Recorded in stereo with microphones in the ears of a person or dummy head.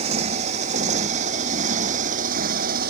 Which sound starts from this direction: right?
A motorcycle, at 0.0 s.